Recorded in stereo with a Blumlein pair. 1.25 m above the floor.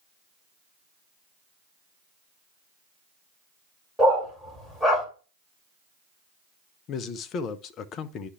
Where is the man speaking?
30° left, 0.7 m.